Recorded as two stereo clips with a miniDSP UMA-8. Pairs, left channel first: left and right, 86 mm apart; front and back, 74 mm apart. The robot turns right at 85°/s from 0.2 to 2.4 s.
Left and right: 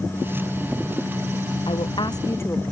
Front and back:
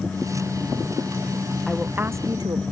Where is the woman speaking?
85° left; by 2.6 s 150° left.